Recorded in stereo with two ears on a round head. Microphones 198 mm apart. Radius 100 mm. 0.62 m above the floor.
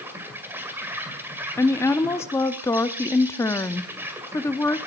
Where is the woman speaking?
10° left (ahead or behind), 0.6 m.